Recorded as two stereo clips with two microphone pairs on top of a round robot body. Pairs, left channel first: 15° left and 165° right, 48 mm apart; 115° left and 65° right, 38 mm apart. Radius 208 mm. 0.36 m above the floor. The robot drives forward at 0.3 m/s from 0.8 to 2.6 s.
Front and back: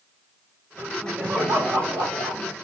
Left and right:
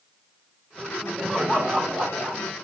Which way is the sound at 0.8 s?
130° right.